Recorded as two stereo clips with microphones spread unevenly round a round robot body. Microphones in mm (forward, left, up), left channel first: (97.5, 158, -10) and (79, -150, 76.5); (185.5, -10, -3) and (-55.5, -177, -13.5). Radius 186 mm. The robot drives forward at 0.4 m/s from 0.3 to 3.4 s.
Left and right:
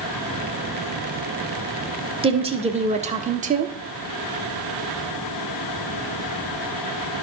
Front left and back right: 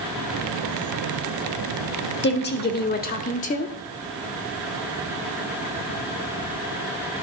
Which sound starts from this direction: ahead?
A woman speaking, at 2.2 s.